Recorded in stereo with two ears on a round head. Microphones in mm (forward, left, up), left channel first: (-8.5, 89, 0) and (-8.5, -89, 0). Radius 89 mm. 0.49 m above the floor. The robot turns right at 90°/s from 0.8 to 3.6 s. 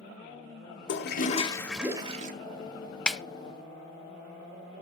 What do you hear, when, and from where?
0.9 s a toilet flushing: 100° left, 1.3 m; by 2.3 s 130° right, 1.3 m
3.1 s a snare drum: 5° left (ahead or behind), 0.5 m; by 3.2 s 5° right (ahead or behind), 0.5 m